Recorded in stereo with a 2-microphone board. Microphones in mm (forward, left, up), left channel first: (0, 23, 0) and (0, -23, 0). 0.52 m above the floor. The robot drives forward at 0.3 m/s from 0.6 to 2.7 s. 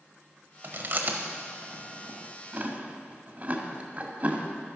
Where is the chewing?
50° right (ahead or behind), 1.1 m; by 4.5 s 35° right (ahead or behind), 1.6 m.